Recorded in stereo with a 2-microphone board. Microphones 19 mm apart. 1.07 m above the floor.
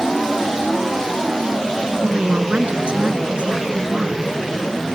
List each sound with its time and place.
2.0 s a woman speaking: 60° right (ahead or behind)